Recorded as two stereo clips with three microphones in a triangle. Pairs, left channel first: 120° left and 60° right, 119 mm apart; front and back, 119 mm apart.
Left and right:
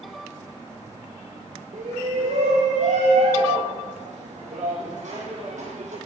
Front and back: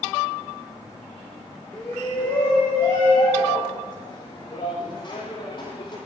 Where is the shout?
80° right, 5.5 m; by 6.0 s 50° right, 10 m.